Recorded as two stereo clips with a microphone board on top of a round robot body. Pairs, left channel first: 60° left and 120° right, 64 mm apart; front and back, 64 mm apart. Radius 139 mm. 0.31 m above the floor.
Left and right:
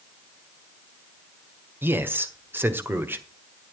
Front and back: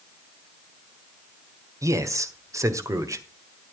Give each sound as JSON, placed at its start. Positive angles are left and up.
{"t": 1.8, "sound": "a man speaking", "azimuth_deg": -170, "distance_m": 1.8}